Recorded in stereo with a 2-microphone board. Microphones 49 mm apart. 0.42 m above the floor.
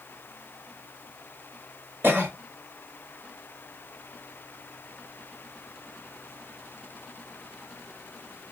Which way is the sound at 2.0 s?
45° right (ahead or behind).